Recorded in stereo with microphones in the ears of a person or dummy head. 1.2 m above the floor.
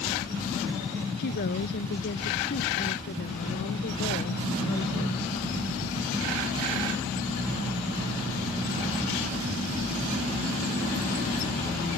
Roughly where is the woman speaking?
Left.